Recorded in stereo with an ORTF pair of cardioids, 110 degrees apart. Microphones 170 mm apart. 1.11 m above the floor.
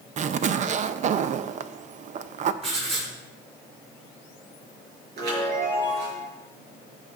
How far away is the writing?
About 5 m.